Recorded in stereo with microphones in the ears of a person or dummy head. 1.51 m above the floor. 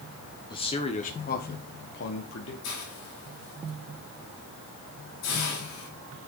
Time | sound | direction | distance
0.5 | a man speaking | 20° left (ahead or behind) | 1.0 m
2.6 | a hiss | 70° left (ahead or behind) | 2.5 m